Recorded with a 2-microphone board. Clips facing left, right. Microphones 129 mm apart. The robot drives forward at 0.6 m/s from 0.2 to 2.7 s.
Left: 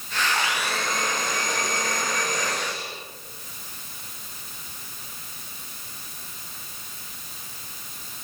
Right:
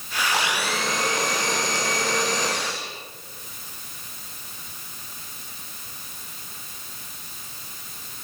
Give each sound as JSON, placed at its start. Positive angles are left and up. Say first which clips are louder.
{"t": 0.3, "sound": "a blender", "louder": "right 3 dB", "side_deg": -75, "distance_m": 7.5}